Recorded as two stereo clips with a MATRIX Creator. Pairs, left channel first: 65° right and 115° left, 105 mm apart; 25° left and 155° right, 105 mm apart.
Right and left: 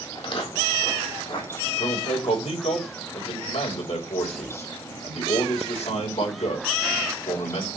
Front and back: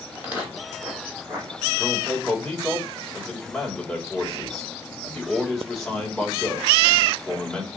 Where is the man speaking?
65° right, 3 m.